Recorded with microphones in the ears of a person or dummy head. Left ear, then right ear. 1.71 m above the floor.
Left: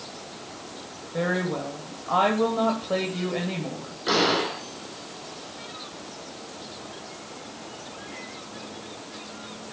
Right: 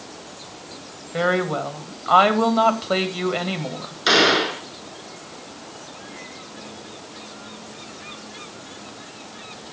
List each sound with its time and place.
1.1 s a woman speaking: 65° right (ahead or behind), 2.5 m
4.1 s a gunshot: 65° right (ahead or behind), 2.5 m